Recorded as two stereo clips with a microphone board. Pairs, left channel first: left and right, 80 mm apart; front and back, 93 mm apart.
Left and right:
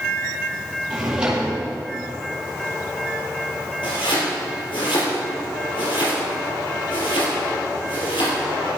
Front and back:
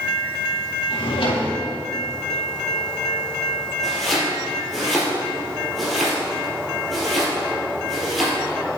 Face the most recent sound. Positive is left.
turn(degrees=90)